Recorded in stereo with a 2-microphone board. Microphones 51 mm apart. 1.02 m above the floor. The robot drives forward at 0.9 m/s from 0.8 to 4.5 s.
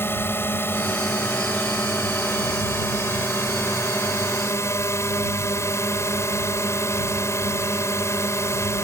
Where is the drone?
50° left (ahead or behind); by 8.8 s 75° left (ahead or behind).